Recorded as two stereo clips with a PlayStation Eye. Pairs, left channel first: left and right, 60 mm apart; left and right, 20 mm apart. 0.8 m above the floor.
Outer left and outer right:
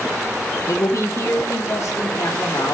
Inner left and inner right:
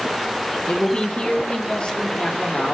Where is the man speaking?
55° left (ahead or behind), 1.0 m; by 2.8 s 60° left (ahead or behind), 2.5 m.